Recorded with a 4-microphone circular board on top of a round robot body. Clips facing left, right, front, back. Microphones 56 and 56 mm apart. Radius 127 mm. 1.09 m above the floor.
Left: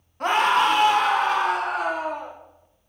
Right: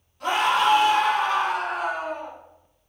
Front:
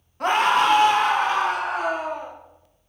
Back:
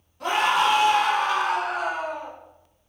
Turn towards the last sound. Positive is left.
turn(degrees=70)